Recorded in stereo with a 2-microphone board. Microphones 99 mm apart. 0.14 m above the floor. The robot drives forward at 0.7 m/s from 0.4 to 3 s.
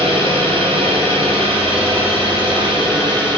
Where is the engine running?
65° right (ahead or behind), 2.5 m; by 3.4 s 50° right (ahead or behind), 3 m.